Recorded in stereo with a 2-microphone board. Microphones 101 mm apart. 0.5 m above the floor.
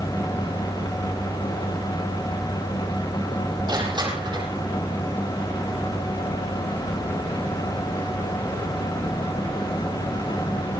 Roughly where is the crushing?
Right.